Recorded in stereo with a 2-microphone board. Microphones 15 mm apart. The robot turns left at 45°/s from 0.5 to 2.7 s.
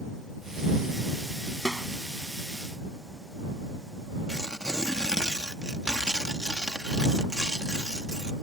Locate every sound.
1.6 s a snare drum: 30° left (ahead or behind); by 1.9 s 20° left (ahead or behind)
4.3 s tearing paper: 50° right (ahead or behind)